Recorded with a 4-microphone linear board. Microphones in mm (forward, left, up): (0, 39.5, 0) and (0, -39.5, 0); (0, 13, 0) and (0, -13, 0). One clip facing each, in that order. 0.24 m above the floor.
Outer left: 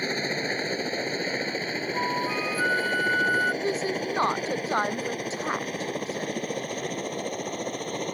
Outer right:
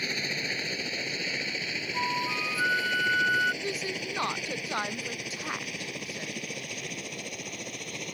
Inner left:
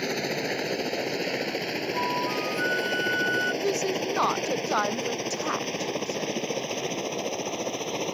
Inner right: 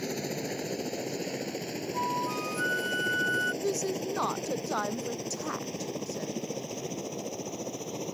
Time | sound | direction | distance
0.0 | a helicopter | 35° left (ahead or behind) | ?
1.9 | a flute | 10° left (ahead or behind) | ?
3.6 | a woman speaking | 30° left (ahead or behind) | ?